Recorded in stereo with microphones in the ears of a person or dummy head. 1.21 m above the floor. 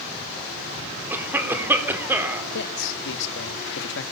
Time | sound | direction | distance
1.1 | a cough | 10° right (ahead or behind) | 3.5 m
2.5 | a man speaking | 70° left (ahead or behind) | 1.7 m